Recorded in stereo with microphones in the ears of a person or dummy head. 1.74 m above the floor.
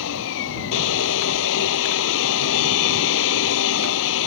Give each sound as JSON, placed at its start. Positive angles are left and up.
{"t": 0.0, "sound": "a machine running", "side_deg": 65}